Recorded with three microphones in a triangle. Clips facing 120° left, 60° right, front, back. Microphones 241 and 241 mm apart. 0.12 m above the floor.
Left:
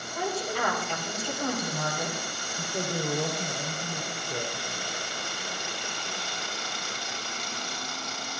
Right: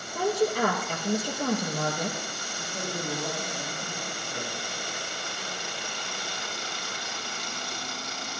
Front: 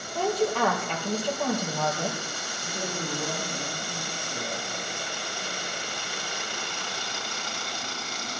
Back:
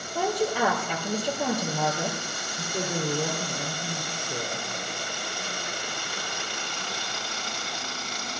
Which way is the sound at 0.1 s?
105° right.